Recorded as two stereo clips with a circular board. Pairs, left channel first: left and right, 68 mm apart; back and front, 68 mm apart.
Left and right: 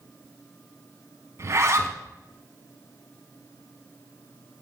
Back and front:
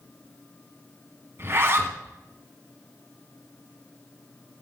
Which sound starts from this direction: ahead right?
A zipper, at 1.4 s.